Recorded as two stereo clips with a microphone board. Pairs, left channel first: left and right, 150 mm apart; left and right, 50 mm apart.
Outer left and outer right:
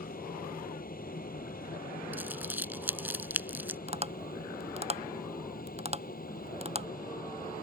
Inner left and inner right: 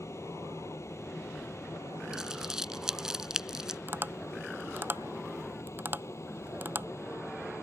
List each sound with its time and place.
0.0 s an aircraft: 65° left (ahead or behind)
2.1 s crumpling: 15° right (ahead or behind)
3.9 s tapping: 45° right (ahead or behind)